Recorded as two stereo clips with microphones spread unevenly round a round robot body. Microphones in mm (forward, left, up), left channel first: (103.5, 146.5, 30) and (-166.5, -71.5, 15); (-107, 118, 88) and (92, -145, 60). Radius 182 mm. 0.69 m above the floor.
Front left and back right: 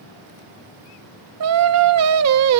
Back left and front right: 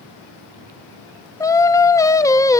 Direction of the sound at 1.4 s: 150° right.